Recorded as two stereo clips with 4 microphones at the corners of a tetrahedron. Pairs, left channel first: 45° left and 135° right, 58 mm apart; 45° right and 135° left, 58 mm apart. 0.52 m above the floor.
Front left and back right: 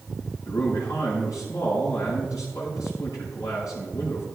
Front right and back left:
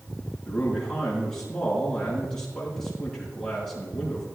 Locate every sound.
0.5 s a man speaking: 35° left, 6 m